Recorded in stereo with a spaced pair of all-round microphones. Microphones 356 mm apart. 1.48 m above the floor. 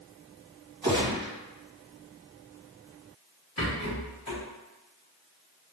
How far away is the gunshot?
About 1.4 m.